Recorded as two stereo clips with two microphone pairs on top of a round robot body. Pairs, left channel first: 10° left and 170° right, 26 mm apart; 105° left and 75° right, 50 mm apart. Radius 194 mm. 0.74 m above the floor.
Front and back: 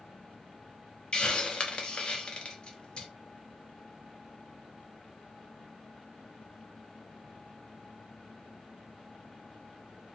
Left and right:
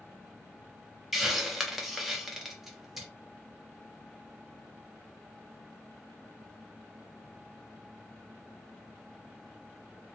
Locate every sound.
1.1 s a hiss: 15° left, 0.9 m